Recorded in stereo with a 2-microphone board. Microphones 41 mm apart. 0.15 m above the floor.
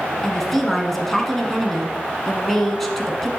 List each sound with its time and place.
0.2 s a woman speaking: 5° left (ahead or behind), 1.2 m